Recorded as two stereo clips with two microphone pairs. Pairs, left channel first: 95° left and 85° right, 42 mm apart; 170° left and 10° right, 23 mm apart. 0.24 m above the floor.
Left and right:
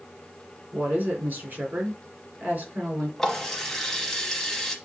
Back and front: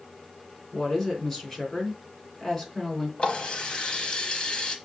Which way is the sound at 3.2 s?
170° left.